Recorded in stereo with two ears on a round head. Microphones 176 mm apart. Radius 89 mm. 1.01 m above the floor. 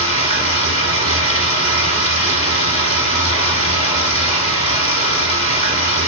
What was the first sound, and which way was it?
Running water, 35° right (ahead or behind).